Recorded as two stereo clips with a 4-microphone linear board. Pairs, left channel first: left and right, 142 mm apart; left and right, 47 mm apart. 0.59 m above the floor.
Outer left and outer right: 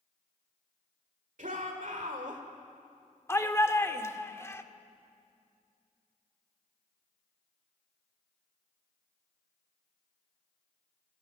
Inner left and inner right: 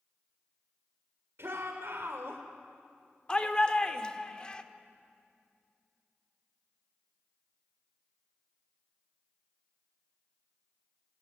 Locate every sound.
1.4 s a shout: 65° right (ahead or behind), 1.9 m; by 2.4 s 60° right (ahead or behind), 1.9 m
3.3 s a shout: 20° left (ahead or behind), 1.4 m